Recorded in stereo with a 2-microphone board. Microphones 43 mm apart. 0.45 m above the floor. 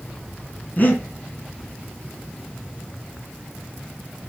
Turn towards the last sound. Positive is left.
turn(degrees=45)  # may be behind; listen again after turning